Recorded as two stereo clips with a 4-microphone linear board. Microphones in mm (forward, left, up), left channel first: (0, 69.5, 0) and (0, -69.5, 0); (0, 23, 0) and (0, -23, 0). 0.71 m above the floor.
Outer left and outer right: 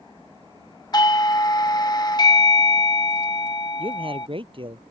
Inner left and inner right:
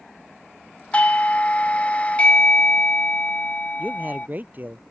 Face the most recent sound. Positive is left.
turn(degrees=-35)  # may be behind; listen again after turning